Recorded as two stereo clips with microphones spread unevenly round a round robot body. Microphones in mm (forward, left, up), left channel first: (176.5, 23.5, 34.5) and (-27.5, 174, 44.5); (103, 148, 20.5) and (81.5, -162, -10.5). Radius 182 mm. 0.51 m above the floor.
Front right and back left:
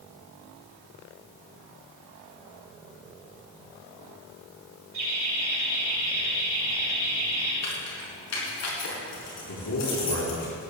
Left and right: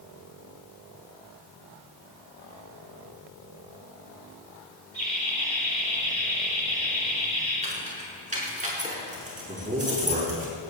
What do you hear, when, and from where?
4.9 s laughter: 170° right, 5 m
7.6 s keys jangling: 25° right, 5 m
9.5 s a man speaking: 30° right, 6 m